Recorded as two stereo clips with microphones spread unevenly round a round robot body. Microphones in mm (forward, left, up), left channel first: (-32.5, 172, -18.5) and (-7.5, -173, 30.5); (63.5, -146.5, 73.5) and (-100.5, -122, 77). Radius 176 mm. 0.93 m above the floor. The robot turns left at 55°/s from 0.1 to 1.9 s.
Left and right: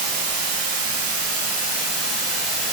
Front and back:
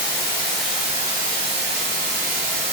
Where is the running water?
70° right, 1.1 m; by 2.7 s 170° right, 1.1 m.